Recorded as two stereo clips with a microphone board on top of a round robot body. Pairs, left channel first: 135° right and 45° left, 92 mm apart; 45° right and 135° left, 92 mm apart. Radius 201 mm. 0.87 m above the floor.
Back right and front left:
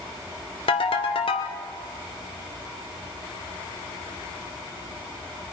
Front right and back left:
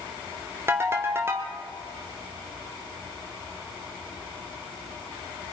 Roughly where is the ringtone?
Behind.